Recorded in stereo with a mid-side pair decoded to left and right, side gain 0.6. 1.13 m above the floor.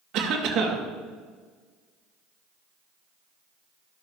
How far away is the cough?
About 2.5 m.